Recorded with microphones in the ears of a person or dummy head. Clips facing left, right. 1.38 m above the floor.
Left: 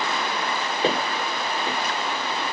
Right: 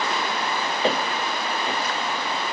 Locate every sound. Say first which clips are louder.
0.8 s footsteps: even; 70° left (ahead or behind), 4.5 m